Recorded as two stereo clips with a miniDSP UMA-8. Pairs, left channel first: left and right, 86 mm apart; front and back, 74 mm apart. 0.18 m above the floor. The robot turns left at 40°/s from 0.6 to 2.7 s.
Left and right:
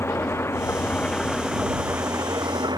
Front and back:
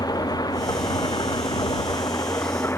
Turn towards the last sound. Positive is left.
turn(degrees=-55)